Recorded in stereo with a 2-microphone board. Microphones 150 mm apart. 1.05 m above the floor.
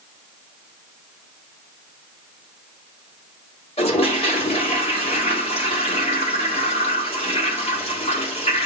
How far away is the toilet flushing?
About 3.5 m.